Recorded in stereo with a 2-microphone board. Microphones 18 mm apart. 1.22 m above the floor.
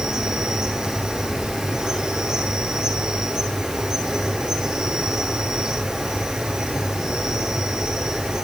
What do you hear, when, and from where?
0.0 s an insect: 45° right (ahead or behind), 9 m